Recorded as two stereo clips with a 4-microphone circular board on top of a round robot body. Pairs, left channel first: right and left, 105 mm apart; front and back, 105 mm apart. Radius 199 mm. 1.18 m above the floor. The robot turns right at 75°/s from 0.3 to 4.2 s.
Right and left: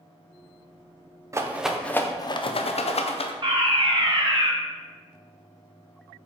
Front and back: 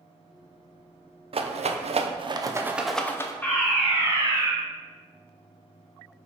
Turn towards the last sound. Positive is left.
turn(degrees=125)